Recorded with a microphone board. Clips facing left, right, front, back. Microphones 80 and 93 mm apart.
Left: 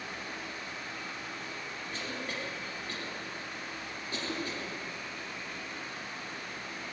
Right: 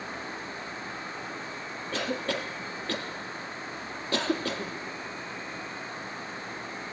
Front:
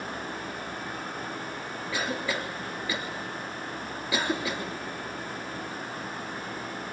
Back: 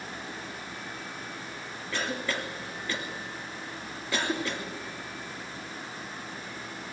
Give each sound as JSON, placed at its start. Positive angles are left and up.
{"t": 1.9, "sound": "a cough", "azimuth_deg": -85, "distance_m": 3.5}